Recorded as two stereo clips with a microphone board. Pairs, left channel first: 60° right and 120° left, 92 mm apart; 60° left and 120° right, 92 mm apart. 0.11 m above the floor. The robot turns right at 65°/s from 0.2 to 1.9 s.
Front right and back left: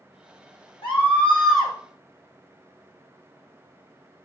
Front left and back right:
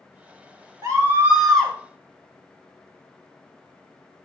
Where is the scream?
75° right, 6 m; by 1.7 s 15° right, 6 m.